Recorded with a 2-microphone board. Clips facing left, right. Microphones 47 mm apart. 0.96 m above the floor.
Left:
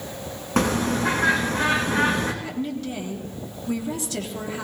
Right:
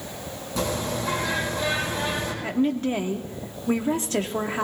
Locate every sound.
0.6 s a bird: 60° left (ahead or behind), 3.5 m
2.4 s a woman speaking: 40° right (ahead or behind), 1.6 m